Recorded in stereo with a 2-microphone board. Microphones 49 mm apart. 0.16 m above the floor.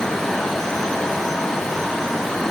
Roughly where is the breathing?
No breathing in this recording.